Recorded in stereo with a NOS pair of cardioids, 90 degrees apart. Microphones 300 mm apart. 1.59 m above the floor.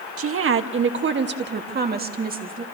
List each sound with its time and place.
0.2 s a woman speaking: 50° right, 1.7 m; by 2.6 s 30° right, 3 m